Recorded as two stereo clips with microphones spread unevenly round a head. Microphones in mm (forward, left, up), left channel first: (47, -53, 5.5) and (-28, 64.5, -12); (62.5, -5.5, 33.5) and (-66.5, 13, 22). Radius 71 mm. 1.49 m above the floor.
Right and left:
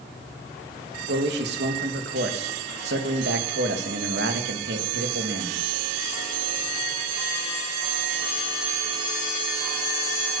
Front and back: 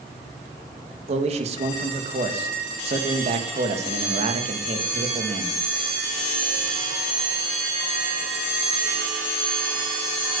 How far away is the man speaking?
About 2.5 m.